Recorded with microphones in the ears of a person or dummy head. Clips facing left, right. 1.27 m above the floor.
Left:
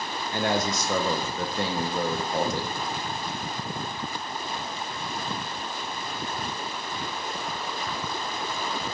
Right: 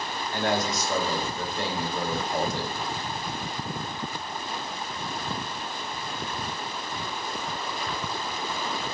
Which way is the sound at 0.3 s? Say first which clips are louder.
Left 1 dB; 65° left (ahead or behind).